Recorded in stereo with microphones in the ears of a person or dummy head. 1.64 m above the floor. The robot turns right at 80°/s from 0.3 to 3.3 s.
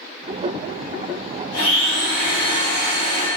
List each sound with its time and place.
1.5 s a blender: 60° left, 1.5 m; by 3.3 s 160° right, 1.5 m